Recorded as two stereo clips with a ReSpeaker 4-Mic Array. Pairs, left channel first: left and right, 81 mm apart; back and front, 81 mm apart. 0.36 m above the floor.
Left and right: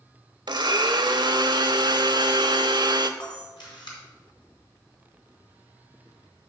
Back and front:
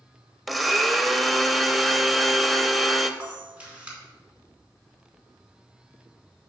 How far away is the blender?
About 0.5 m.